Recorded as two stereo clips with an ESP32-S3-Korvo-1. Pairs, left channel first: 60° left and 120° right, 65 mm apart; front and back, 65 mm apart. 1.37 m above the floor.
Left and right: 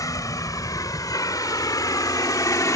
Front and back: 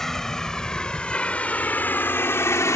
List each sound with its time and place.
0.0 s a vehicle: 85° left; by 2.8 s 35° left